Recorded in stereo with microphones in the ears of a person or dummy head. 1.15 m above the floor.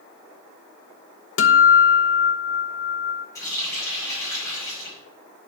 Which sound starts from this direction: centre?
A running tap, at 3.4 s.